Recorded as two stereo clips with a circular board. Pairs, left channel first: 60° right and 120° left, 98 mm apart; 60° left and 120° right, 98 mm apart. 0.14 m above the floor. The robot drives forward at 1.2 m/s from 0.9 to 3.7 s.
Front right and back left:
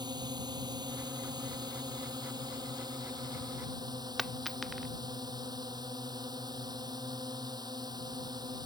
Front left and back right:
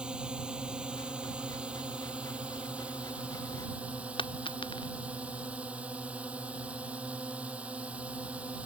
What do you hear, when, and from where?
0.0 s a drone: 160° left; by 8.7 s 165° left
4.2 s a dropped coin: 30° left